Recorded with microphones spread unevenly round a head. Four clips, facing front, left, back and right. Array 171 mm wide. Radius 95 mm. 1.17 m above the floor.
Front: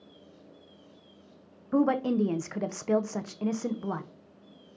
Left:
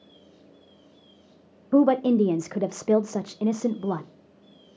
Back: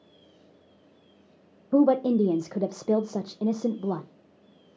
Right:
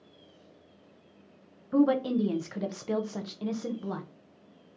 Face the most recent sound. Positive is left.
turn(degrees=120)